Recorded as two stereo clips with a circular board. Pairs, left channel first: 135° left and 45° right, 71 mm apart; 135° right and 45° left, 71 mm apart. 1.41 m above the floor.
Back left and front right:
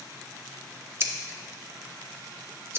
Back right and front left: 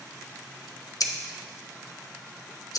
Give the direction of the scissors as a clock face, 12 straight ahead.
3 o'clock.